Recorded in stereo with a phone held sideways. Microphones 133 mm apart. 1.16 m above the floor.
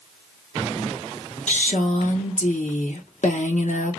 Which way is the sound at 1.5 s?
65° left (ahead or behind).